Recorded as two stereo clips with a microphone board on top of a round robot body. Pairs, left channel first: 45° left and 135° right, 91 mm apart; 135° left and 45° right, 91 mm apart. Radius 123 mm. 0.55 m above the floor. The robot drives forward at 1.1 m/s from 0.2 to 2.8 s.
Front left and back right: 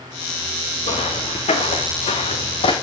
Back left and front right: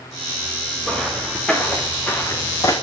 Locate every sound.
0.8 s footsteps: 45° left, 4 m; by 2.7 s 75° left, 1.8 m